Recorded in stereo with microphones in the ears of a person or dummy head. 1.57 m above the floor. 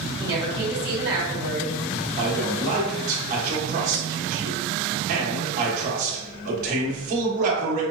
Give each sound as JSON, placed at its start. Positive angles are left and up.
{"t": 0.2, "sound": "a woman speaking", "side_deg": -20, "distance_m": 1.9}
{"t": 2.2, "sound": "a man speaking", "side_deg": -40, "distance_m": 1.2}